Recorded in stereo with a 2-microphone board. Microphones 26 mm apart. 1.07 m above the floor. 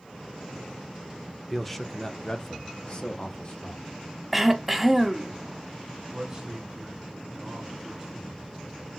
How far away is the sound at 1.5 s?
About 0.9 m.